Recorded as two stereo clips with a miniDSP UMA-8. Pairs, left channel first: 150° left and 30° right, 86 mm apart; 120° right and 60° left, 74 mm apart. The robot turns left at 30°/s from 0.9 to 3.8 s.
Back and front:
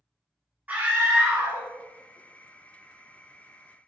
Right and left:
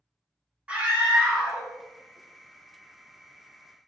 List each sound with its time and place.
0.7 s a scream: 10° left, 0.9 m; by 1.7 s 10° right, 0.9 m